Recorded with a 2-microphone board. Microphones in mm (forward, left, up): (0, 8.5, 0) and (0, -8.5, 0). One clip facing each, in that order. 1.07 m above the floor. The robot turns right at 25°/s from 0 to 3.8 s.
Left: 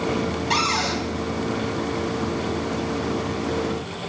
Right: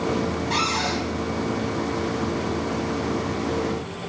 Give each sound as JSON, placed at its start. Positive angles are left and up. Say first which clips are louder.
{"t": 0.5, "sound": "a cupboard door", "louder": "left 2 dB", "side_deg": 60, "distance_m": 1.8}